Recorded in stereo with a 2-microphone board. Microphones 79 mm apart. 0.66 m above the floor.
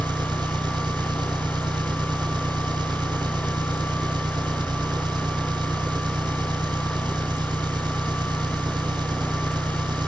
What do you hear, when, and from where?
0.0 s an engine running: 70° right (ahead or behind), 1.6 m